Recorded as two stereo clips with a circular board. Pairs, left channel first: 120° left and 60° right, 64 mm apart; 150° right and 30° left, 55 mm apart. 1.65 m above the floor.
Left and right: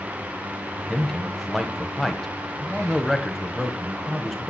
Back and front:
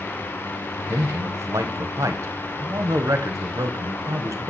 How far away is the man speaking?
About 1.3 m.